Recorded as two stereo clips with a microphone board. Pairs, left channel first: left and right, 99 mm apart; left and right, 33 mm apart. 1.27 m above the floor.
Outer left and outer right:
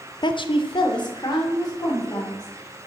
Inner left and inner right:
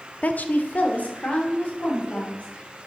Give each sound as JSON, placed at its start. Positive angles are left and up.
{"t": 0.2, "sound": "a woman speaking", "side_deg": 45, "distance_m": 0.5}